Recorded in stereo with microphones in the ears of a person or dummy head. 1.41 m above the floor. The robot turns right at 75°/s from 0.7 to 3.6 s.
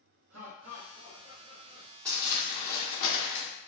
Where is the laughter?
90° right, 1.2 m; by 1.9 s 5° left, 1.2 m.